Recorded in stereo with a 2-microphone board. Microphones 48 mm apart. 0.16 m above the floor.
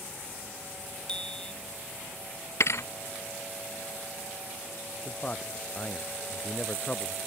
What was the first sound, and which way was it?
A bicycle bell, 15° left (ahead or behind).